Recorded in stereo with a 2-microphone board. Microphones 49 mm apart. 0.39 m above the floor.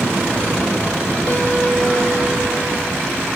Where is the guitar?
45° left (ahead or behind), 1.6 m.